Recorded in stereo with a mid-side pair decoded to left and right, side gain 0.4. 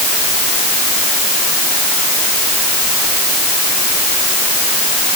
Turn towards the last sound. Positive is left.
No sound to turn to.